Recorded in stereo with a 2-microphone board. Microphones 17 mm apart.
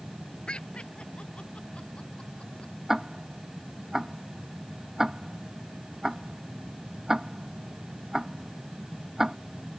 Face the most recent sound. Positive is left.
turn(degrees=-20)  # may be behind; listen again after turning